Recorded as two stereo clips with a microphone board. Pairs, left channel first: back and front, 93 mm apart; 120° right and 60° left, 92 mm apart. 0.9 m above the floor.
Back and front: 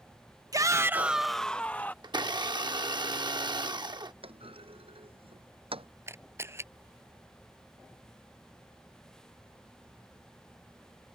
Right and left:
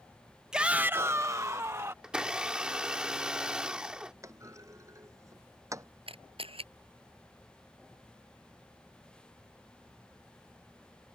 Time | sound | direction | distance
0.5 | a shout | 20° right | ?
2.0 | a blender | 20° right | ?
4.2 | a clunk | 5° left | ?
6.1 | a camera shutter | 60° left | ?